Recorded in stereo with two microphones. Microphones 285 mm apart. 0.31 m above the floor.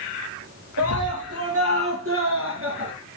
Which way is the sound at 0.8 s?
55° right (ahead or behind).